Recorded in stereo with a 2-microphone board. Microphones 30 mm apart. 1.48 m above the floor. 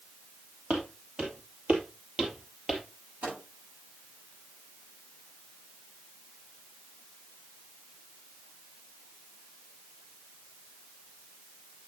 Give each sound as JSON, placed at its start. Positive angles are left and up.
{"t": 0.7, "sound": "footsteps", "side_deg": -55, "distance_m": 3.0}
{"t": 3.2, "sound": "a microwave", "side_deg": -75, "distance_m": 8.0}